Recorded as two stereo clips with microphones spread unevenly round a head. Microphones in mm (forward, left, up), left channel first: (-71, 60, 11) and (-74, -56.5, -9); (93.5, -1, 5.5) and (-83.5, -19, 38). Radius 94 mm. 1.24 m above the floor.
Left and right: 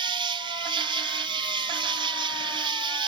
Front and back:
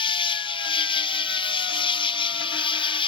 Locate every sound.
0.0 s an insect: 45° right